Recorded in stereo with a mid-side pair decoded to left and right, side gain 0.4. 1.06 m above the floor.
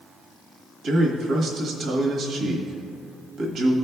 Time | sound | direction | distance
0.8 | a man speaking | 65° right | 1.3 m